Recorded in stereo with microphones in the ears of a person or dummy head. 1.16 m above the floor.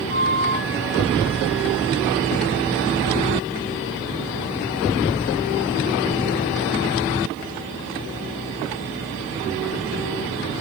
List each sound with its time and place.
0.1 s a flute: 30° left (ahead or behind), 1.8 m